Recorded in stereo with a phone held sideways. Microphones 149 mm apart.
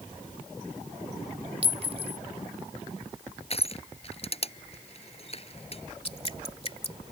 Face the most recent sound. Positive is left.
turn(degrees=40)  # may be behind; listen again after turning